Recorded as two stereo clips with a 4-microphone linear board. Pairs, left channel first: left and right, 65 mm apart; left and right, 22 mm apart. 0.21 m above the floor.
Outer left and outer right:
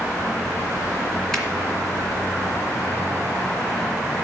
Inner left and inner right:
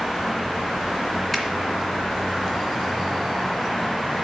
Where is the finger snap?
5° left (ahead or behind), 2 m.